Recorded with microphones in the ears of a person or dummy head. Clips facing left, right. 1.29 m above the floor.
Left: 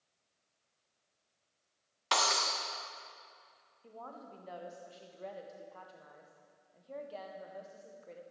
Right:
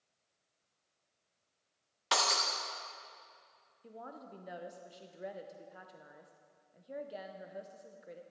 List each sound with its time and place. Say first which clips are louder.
2.1 s breaking glass: left 1 dB; 5° right (ahead or behind), 1.1 m
3.8 s a woman speaking: even; 15° right (ahead or behind), 0.6 m